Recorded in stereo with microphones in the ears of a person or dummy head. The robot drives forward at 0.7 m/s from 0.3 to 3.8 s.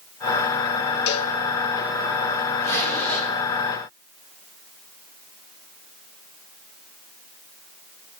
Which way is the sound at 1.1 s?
55° left (ahead or behind).